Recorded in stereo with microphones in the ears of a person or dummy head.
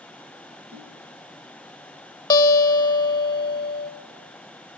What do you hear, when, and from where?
0.7 s a whoosh: 50° right (ahead or behind), 2 m
2.3 s a guitar: 20° left (ahead or behind), 0.7 m